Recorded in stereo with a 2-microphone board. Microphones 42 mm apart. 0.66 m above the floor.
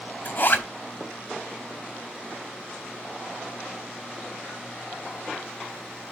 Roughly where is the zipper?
Left.